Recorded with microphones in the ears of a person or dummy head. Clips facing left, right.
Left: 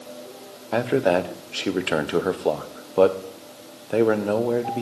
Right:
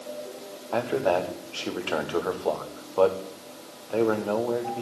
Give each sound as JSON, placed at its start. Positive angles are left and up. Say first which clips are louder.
{"t": 0.7, "sound": "a man speaking", "louder": "left 4 dB", "side_deg": 25, "distance_m": 0.5}